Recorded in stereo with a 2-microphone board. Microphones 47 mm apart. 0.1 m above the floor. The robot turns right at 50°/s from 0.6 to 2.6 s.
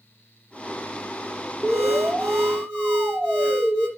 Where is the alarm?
20° right, 2.5 m; by 3.9 s 30° left, 2.5 m.